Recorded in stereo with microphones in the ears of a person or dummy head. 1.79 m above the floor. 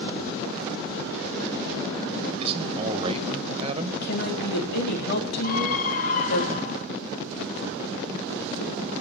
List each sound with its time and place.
2.4 s a man speaking: 30° right (ahead or behind), 2.5 m
4.0 s a woman speaking: 65° left (ahead or behind), 4.5 m
5.4 s a scream: 45° left (ahead or behind), 3.5 m